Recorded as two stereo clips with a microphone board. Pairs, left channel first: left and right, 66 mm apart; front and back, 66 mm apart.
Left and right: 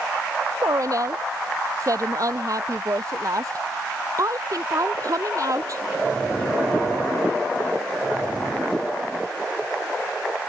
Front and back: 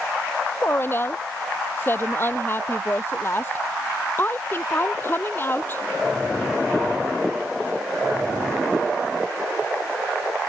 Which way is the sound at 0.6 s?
55° right.